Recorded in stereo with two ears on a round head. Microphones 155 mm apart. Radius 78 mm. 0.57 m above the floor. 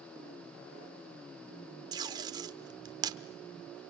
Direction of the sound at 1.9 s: 20° right (ahead or behind).